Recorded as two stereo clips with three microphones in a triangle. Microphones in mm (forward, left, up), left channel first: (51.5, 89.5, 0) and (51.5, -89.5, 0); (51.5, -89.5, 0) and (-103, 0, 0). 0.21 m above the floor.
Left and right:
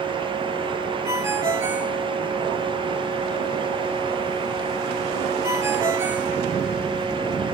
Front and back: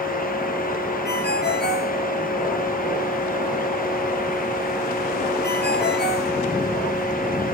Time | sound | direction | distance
1.1 | a ringtone | 15° right | 2.5 m